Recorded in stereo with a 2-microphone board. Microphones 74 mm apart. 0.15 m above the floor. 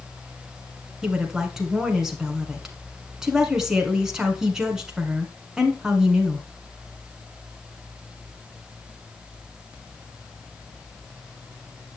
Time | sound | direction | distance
1.0 | a woman speaking | 10° right (ahead or behind) | 1.7 m